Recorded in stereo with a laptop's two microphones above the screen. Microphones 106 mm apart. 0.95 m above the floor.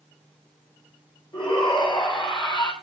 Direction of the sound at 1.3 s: 55° left (ahead or behind).